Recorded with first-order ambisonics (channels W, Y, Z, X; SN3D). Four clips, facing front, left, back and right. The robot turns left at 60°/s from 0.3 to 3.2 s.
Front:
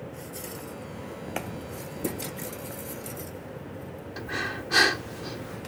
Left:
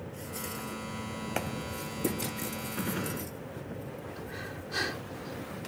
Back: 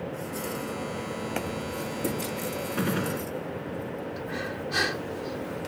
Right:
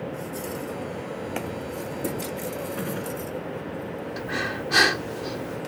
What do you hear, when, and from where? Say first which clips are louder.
2.8 s a gunshot: right 4 dB, back 10 dB; 170° right; by 3.3 s 165° left
4.2 s breathing: right 12 dB, front 1 dB; 65° right